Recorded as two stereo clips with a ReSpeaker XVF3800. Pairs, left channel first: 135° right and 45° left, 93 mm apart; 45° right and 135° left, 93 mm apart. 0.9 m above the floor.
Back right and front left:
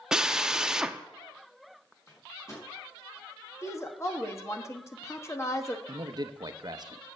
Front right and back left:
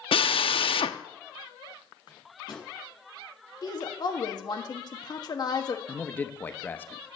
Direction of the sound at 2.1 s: 80° right.